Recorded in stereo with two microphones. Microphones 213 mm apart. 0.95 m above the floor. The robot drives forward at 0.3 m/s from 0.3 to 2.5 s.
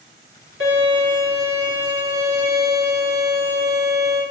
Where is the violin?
70° right (ahead or behind), 1.8 m; by 4.2 s 85° right, 1.7 m.